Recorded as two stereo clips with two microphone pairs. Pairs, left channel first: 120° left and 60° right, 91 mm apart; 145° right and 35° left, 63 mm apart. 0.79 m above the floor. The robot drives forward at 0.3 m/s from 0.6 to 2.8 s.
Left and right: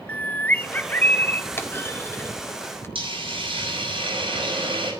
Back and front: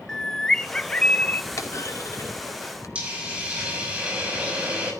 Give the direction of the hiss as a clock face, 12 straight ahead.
1 o'clock.